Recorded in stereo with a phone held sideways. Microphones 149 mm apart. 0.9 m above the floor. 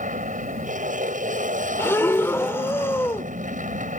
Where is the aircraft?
60° right (ahead or behind).